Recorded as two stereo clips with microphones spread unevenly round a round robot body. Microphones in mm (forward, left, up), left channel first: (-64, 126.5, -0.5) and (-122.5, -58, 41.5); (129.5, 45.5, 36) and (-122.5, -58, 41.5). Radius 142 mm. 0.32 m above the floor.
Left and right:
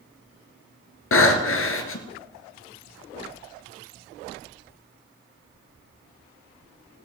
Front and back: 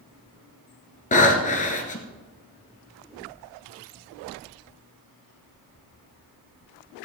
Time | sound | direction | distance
1.1 | breathing | 85° left | 1.4 m